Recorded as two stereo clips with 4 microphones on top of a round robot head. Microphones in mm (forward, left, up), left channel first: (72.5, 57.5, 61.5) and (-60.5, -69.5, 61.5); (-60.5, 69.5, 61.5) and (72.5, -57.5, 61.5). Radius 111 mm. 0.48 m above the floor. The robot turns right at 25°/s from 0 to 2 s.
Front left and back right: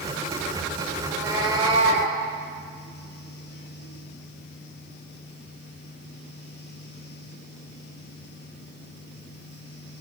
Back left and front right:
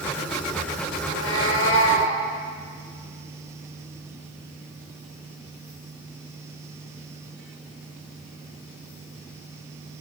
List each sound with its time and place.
1.0 s a cat meowing: 145° left, 4.5 m; by 2.1 s 170° left, 4.5 m